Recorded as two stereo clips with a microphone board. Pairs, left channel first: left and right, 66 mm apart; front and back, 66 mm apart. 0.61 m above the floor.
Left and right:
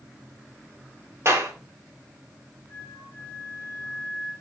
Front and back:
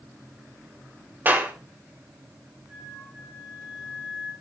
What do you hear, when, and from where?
1.2 s a clap: 125° right, 2.5 m
2.7 s a flute: 120° right, 5 m